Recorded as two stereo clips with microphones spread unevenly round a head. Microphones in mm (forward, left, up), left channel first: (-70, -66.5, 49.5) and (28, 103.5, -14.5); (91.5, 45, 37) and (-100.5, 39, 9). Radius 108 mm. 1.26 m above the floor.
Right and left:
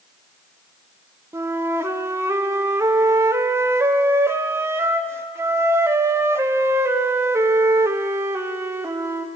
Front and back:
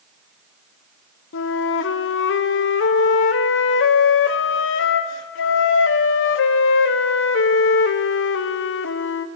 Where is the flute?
Straight ahead, 0.6 m.